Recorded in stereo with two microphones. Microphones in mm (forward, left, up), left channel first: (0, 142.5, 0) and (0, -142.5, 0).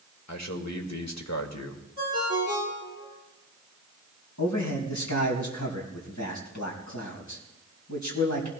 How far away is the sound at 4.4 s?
About 3.5 m.